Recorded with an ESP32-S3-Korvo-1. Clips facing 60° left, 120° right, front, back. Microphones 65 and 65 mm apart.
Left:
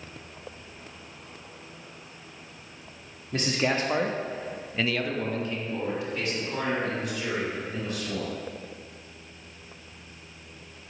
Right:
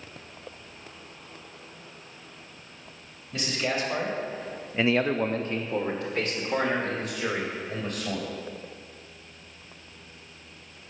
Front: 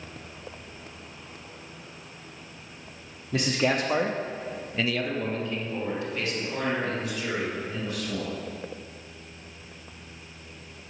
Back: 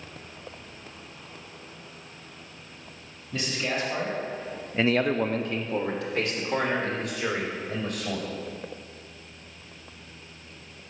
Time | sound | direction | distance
3.3 | a man speaking | 15° left | 1.6 m